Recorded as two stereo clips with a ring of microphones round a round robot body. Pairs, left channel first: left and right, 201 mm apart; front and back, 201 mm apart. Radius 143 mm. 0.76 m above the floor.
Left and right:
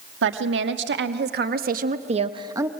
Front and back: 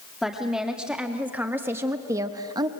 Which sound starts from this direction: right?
A woman speaking, at 0.2 s.